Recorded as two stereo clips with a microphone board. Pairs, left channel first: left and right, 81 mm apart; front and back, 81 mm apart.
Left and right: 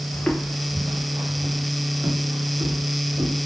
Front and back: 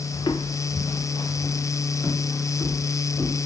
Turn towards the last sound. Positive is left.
turn(degrees=-50)